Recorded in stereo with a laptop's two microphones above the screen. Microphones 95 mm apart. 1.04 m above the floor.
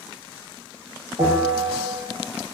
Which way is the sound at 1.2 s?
65° right (ahead or behind).